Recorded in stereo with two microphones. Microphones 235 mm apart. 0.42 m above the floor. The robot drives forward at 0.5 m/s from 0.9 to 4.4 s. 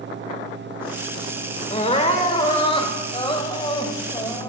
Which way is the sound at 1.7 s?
30° left (ahead or behind).